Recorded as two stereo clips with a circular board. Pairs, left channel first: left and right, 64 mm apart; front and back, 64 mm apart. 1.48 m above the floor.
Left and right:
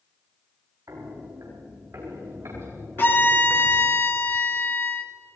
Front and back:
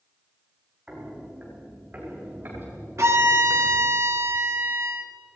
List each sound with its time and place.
0.9 s footsteps: 110° right, 4.5 m; by 4.0 s 140° right, 6 m
3.0 s a violin: 145° left, 1.5 m